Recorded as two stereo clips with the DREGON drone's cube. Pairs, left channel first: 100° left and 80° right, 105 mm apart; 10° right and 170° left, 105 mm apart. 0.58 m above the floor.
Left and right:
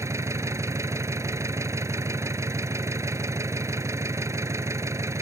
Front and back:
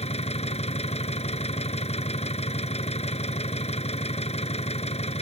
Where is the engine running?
15° right.